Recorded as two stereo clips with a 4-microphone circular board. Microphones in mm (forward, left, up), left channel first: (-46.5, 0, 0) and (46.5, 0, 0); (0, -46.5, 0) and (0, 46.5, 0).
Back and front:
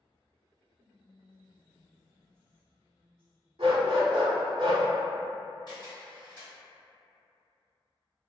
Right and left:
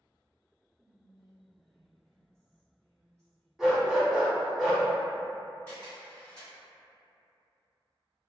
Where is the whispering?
110° left, 1.1 m.